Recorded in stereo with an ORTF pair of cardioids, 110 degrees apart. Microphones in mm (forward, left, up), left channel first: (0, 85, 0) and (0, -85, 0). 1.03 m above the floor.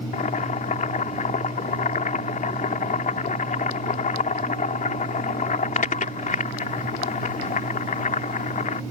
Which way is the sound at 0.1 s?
50° left.